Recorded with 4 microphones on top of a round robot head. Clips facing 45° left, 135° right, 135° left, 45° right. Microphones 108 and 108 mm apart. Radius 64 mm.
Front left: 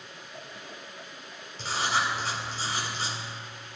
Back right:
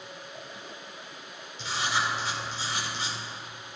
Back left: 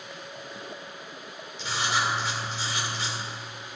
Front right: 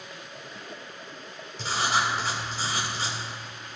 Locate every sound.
1.6 s writing: straight ahead, 2.5 m